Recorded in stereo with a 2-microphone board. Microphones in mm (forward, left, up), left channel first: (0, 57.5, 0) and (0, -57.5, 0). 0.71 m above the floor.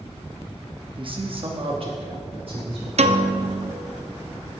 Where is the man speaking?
45° right (ahead or behind), 1.0 m; by 2.9 s 50° right (ahead or behind), 1.5 m.